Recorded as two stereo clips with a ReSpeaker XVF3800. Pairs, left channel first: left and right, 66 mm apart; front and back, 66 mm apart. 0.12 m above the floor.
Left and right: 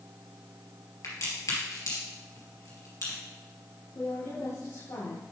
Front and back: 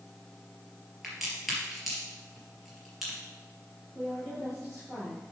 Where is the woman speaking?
80° left, 4 m.